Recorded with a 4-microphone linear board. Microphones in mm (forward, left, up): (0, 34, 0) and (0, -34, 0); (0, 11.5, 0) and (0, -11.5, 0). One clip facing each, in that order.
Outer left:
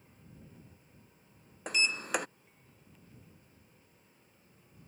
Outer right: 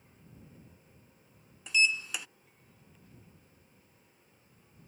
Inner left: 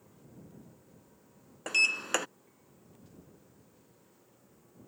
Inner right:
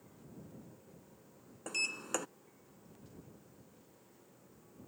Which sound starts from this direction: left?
A sliding door, at 1.7 s.